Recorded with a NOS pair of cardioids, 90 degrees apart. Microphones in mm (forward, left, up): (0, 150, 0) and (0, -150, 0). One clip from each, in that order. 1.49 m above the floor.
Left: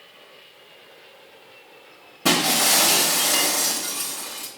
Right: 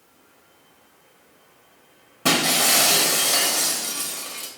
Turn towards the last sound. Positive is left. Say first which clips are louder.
# even
turn(degrees=-10)